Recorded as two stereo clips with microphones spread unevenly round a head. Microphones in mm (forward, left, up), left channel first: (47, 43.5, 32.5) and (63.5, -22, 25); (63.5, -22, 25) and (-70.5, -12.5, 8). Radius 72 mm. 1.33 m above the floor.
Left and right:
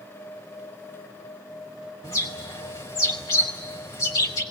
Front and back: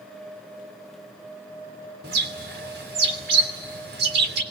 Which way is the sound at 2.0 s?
165° left.